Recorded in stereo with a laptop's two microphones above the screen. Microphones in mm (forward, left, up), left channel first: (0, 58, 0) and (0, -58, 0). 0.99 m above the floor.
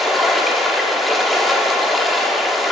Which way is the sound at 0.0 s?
Centre (ahead or behind).